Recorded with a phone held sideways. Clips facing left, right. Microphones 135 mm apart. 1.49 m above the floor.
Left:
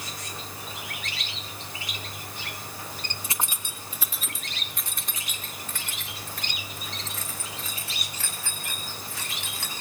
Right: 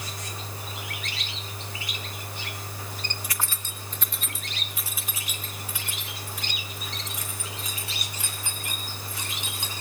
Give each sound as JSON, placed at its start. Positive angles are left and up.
{"t": 3.2, "sound": "keys jangling", "side_deg": 25, "distance_m": 1.1}